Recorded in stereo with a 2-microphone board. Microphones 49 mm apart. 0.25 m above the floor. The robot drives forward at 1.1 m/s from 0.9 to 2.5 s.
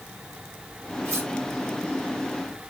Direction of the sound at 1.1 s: 65° right (ahead or behind).